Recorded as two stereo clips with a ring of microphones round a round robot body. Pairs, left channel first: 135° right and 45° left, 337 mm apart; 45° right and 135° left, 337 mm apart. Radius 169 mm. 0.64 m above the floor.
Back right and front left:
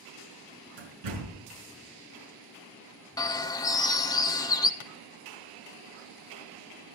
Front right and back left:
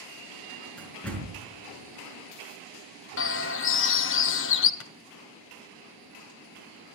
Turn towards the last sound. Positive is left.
turn(degrees=-95)